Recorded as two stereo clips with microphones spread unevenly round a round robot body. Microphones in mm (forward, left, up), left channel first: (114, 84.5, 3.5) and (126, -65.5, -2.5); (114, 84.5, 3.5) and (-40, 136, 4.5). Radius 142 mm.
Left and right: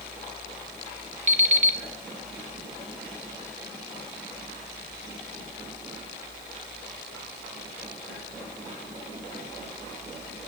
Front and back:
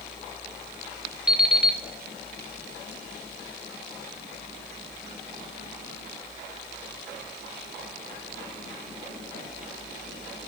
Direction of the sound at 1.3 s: 115° right.